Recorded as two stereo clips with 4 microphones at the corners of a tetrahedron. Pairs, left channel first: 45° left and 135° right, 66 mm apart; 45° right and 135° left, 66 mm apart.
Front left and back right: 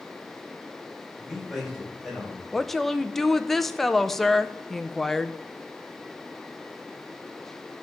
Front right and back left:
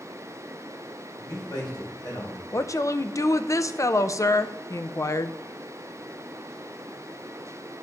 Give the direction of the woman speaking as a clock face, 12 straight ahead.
1 o'clock.